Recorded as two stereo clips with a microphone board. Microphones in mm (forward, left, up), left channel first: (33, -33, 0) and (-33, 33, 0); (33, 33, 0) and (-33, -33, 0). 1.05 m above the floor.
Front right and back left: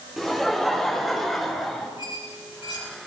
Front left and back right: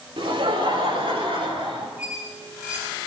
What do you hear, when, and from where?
0.2 s laughter: 135° right, 4 m
2.0 s a squeak: 60° right, 6 m